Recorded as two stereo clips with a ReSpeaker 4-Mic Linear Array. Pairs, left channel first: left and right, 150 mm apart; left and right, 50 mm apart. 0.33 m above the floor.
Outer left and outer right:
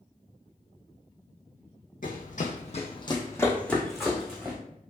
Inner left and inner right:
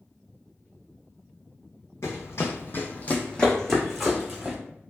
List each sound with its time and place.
2.0 s running footsteps: 65° left (ahead or behind), 0.7 m; by 4.6 s 10° right (ahead or behind), 1.1 m